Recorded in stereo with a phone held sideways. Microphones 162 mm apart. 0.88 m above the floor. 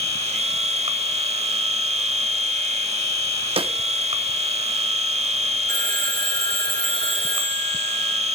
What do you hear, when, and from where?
0.0 s a machine running: 40° right (ahead or behind), 1.0 m
3.6 s a snare drum: 35° right (ahead or behind), 0.6 m
5.7 s a phone ringing: 60° right (ahead or behind), 1.1 m